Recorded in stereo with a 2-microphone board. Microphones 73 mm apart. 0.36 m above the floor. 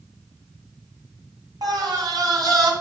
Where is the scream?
60° right (ahead or behind), 3 m.